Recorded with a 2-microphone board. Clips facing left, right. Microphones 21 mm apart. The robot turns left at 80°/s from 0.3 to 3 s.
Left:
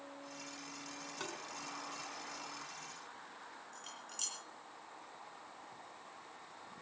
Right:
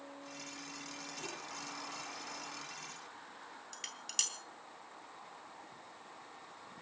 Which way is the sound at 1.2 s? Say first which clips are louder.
Left 2 dB; 70° left (ahead or behind).